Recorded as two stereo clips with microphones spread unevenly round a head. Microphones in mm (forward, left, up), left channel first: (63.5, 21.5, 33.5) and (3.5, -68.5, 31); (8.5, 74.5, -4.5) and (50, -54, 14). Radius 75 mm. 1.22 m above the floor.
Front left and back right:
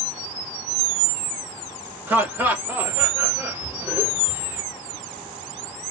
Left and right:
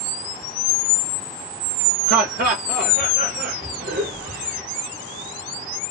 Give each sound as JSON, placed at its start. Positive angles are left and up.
{"t": 2.1, "sound": "laughter", "azimuth_deg": -50, "distance_m": 1.6}